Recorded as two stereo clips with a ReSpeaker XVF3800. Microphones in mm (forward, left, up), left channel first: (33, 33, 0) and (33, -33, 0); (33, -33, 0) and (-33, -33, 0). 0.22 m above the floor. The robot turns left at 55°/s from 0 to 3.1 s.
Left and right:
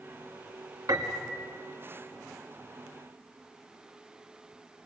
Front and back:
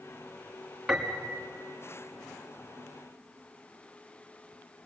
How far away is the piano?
About 1.9 m.